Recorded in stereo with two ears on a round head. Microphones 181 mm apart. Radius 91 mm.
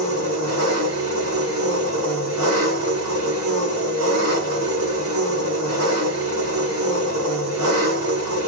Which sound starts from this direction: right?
An engine running, at 0.0 s.